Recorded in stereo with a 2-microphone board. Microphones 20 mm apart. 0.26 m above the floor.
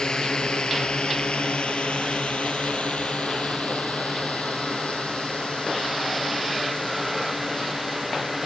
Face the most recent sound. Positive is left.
turn(degrees=75)  # may be behind; listen again after turning